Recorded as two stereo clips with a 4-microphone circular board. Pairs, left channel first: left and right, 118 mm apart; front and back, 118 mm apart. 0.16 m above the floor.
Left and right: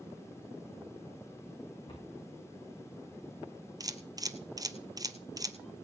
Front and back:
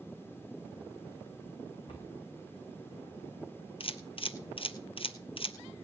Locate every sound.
1.9 s a cupboard door: 50° left, 8.5 m
3.8 s a camera shutter: 35° right, 1.3 m